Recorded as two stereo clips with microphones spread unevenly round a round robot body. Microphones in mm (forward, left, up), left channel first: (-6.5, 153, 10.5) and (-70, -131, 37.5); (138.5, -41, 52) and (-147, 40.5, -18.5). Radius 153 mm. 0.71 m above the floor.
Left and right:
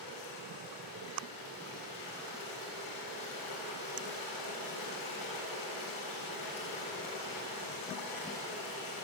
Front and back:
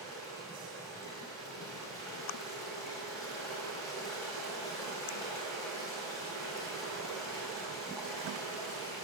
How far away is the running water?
About 4 m.